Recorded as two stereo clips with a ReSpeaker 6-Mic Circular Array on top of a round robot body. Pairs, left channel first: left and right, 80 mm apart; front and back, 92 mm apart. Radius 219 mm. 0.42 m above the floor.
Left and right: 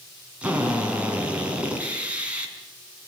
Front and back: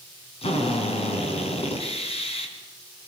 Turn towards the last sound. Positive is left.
turn(degrees=-15)